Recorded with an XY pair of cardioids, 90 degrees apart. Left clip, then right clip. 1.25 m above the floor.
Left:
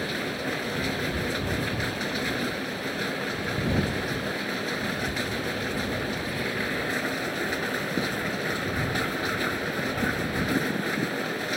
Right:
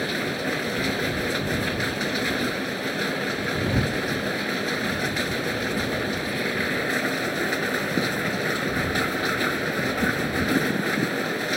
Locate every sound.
0.0 s a machine running: 25° right